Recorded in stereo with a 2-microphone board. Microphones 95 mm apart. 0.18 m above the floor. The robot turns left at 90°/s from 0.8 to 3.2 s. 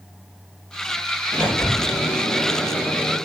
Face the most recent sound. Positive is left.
turn(degrees=10)